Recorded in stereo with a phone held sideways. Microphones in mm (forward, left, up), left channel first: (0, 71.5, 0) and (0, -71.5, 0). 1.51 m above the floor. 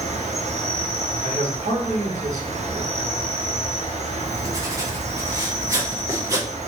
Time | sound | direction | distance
0.0 | an insect | 50° right (ahead or behind) | 0.8 m
1.2 | a man speaking | 75° right (ahead or behind) | 1.2 m
4.2 | writing | 20° right (ahead or behind) | 1.1 m